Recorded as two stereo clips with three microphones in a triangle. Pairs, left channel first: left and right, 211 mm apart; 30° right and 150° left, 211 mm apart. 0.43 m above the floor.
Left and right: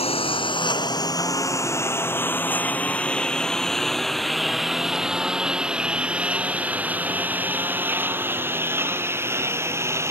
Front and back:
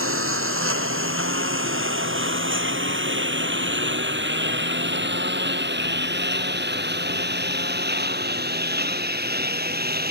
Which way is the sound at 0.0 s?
150° left.